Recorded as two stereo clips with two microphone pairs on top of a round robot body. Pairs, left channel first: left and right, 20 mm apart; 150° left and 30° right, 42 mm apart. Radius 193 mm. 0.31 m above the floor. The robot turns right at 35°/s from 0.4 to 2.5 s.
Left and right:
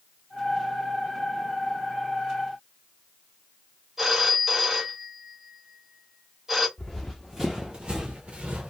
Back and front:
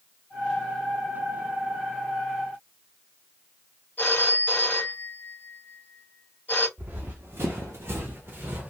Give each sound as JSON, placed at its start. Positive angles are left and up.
{"t": 4.0, "sound": "a phone ringing", "azimuth_deg": -155, "distance_m": 1.5}
{"t": 6.8, "sound": "running footsteps", "azimuth_deg": 20, "distance_m": 0.7}